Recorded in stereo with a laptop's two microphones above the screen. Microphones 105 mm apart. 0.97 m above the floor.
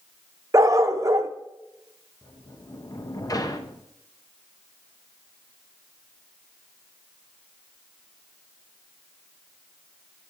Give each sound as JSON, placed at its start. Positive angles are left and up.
{"t": 0.5, "sound": "a dog barking", "side_deg": -30, "distance_m": 0.6}
{"t": 2.2, "sound": "a sliding door", "side_deg": 35, "distance_m": 0.6}